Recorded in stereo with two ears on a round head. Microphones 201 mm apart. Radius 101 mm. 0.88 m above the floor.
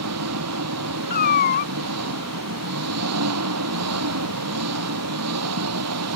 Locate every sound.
0.0 s an engine running: 85° right
1.1 s a cat meowing: 45° left (ahead or behind)